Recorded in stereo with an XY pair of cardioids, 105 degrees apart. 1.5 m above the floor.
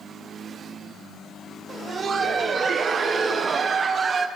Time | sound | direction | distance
1.7 | laughter | 40° right | 1.0 m